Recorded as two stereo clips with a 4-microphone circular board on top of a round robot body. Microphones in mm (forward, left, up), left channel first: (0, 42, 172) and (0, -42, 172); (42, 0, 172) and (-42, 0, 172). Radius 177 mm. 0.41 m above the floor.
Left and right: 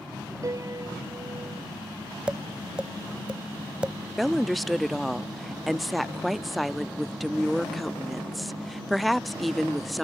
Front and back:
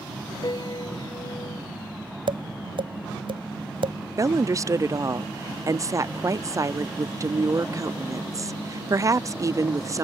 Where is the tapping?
170° right.